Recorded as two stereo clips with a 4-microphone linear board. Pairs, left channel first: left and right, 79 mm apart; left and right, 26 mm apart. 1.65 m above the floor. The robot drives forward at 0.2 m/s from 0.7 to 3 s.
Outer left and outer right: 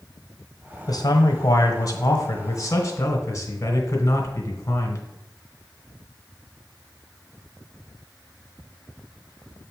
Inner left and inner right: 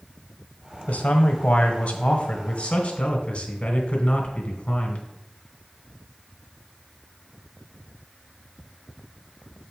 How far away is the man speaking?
About 0.9 m.